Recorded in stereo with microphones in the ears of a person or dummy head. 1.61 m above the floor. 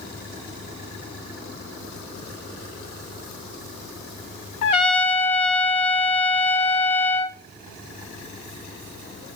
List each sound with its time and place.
4.6 s a trumpet: 35° left (ahead or behind), 0.6 m